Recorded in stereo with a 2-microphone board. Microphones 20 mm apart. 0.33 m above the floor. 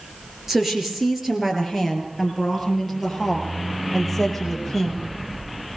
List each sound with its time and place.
0.5 s a woman speaking: 20° right (ahead or behind), 5.5 m; by 5.0 s 5° left (ahead or behind), 8.5 m